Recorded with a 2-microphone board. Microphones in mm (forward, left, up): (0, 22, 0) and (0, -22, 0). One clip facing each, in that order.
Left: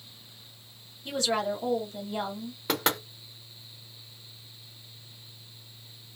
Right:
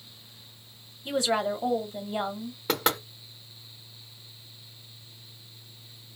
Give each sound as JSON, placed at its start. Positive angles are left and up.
{"t": 1.1, "sound": "a woman speaking", "side_deg": -15, "distance_m": 1.1}
{"t": 2.7, "sound": "knocking", "side_deg": 0, "distance_m": 1.0}